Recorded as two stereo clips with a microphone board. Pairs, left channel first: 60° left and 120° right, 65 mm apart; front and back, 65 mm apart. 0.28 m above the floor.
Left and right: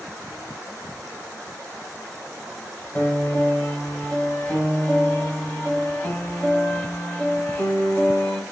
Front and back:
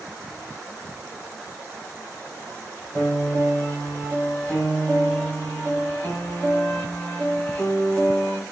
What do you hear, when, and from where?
3.0 s a piano: 25° left, 1.4 m